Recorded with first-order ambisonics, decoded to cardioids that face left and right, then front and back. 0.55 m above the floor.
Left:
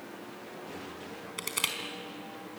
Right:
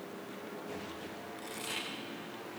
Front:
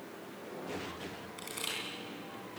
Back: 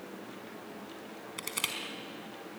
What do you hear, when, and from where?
1.4 s crushing: 120° left, 4.5 m